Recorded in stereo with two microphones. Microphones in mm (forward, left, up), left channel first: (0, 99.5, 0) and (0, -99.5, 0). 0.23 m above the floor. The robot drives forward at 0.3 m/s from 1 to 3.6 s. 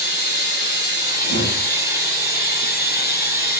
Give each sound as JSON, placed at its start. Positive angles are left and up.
{"t": 0.0, "sound": "running water", "side_deg": 65, "distance_m": 2.5}
{"t": 1.2, "sound": "a whoosh", "side_deg": 75, "distance_m": 4.5}